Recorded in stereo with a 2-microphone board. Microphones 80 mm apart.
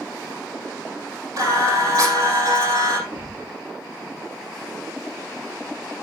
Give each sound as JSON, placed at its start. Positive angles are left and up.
{"t": 1.4, "sound": "singing", "side_deg": -50, "distance_m": 4.5}
{"t": 3.1, "sound": "a thud", "side_deg": -65, "distance_m": 6.0}